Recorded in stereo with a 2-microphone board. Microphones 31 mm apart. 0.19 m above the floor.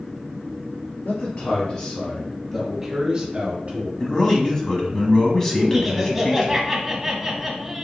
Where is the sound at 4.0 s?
20° left (ahead or behind), 1.2 m.